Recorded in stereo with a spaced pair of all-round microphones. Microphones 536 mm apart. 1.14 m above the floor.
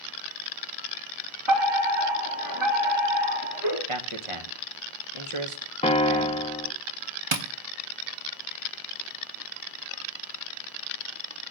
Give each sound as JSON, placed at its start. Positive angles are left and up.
{"t": 1.5, "sound": "a fire alarm", "side_deg": -55, "distance_m": 4.0}
{"t": 3.9, "sound": "a man speaking", "side_deg": -65, "distance_m": 1.3}
{"t": 5.8, "sound": "a piano", "side_deg": 10, "distance_m": 0.8}
{"t": 7.3, "sound": "tapping", "side_deg": -60, "distance_m": 0.9}